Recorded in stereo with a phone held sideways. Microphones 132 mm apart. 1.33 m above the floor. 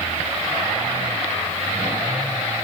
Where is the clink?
I don't hear a clink.